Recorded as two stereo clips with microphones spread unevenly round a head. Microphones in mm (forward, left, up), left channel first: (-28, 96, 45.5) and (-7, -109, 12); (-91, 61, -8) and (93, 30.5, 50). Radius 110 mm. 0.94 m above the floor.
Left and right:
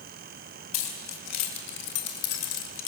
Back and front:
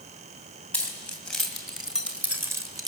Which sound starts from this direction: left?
Keys jangling, at 0.7 s.